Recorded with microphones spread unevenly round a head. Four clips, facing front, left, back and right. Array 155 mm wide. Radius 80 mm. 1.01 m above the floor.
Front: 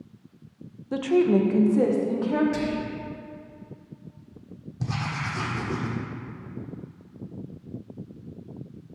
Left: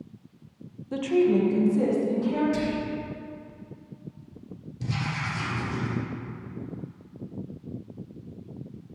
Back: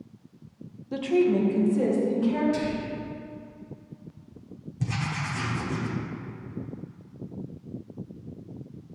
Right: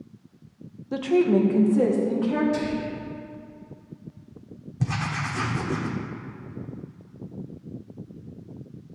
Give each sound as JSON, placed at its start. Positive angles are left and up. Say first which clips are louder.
{"t": 0.9, "sound": "a woman speaking", "louder": "right 2 dB, front 2 dB", "azimuth_deg": -30, "distance_m": 0.8}
{"t": 2.5, "sound": "whispering", "louder": "even, front 1 dB", "azimuth_deg": -15, "distance_m": 2.0}
{"t": 4.8, "sound": "writing", "louder": "right 3 dB, front 1 dB", "azimuth_deg": -75, "distance_m": 1.2}